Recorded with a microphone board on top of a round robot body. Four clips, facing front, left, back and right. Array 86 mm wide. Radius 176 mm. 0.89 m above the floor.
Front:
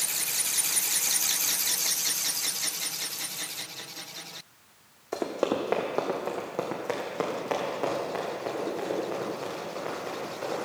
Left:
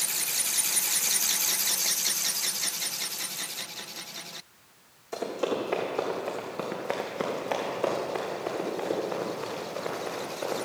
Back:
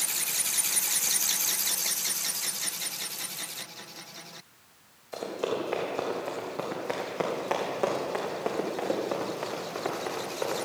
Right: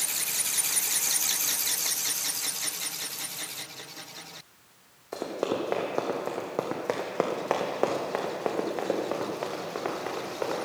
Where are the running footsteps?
15° right, 2.0 m; by 10.6 s 120° right, 4.5 m.